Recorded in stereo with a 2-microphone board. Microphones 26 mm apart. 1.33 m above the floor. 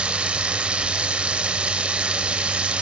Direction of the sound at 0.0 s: 45° right (ahead or behind).